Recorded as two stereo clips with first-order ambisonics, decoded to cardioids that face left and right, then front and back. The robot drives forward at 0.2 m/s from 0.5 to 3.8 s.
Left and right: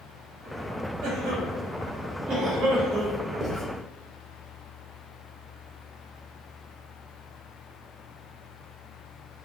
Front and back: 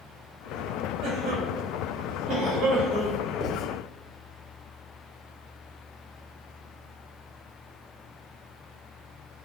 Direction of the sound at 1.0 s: 135° right.